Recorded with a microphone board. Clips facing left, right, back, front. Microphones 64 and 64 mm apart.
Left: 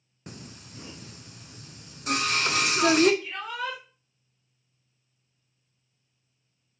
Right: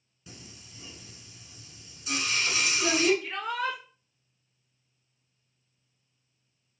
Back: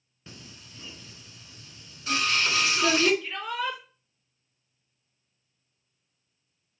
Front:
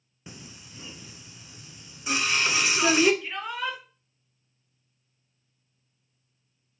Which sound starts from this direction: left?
Singing, at 0.3 s.